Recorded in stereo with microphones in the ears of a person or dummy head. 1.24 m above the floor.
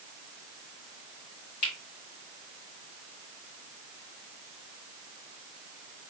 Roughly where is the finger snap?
Left.